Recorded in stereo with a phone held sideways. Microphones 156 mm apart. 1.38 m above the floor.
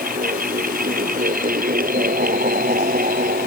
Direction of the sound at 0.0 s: 70° right (ahead or behind).